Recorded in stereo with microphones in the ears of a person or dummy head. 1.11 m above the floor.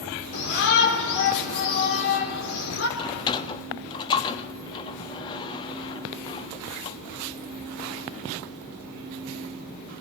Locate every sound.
0.3 s a shout: 65° left (ahead or behind), 4 m
3.0 s a sliding door: 25° left (ahead or behind), 0.7 m